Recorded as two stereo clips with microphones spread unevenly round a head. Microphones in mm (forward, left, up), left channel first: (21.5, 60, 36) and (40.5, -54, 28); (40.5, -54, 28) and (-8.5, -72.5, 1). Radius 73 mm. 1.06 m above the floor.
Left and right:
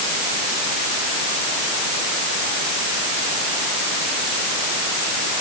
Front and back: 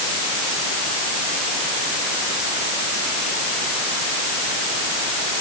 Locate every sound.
Only background noise.